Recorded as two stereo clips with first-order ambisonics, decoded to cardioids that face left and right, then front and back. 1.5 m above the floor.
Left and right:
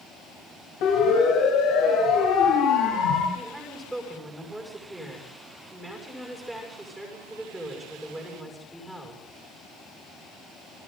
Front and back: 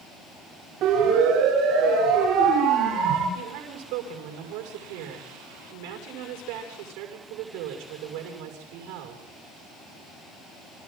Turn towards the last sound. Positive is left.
turn(degrees=-175)